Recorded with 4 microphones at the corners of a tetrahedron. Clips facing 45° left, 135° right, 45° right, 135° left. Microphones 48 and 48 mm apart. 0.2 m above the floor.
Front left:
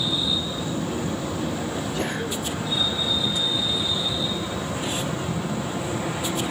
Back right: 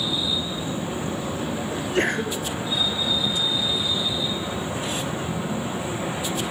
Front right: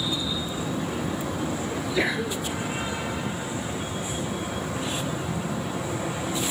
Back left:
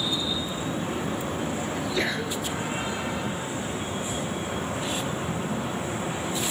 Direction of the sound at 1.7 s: 125° right.